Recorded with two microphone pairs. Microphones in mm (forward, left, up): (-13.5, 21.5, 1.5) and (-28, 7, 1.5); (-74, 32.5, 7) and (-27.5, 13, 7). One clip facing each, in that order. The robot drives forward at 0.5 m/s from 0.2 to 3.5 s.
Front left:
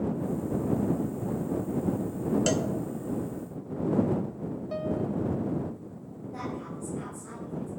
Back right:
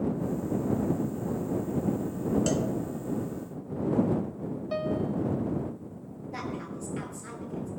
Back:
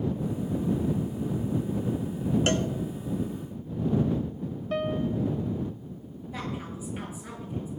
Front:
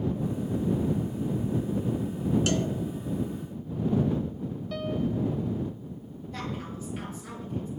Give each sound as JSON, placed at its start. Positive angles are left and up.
{"t": 2.5, "sound": "a cowbell", "azimuth_deg": 110, "distance_m": 0.7}
{"t": 4.7, "sound": "a piano", "azimuth_deg": -175, "distance_m": 1.1}
{"t": 6.3, "sound": "a woman speaking", "azimuth_deg": -125, "distance_m": 6.0}